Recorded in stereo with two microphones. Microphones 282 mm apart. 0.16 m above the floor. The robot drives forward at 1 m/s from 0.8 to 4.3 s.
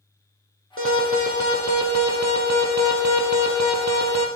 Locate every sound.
0.8 s an alarm: 50° right (ahead or behind), 4 m; by 4.3 s 65° right (ahead or behind), 3 m